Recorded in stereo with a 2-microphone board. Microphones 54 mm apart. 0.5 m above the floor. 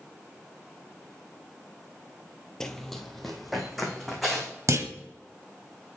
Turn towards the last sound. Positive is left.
turn(degrees=-70)  # may be behind; listen again after turning